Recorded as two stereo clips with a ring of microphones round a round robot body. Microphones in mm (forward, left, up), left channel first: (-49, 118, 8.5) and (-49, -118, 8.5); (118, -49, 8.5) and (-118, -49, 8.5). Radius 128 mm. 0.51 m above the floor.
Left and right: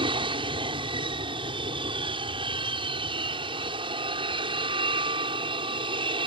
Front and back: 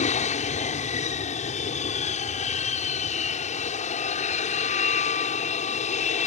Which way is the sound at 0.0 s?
35° right.